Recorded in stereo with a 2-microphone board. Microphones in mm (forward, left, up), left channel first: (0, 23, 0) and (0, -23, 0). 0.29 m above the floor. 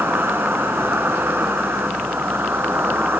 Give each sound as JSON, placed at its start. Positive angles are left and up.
{"t": 0.0, "sound": "an insect", "side_deg": -55, "distance_m": 3.0}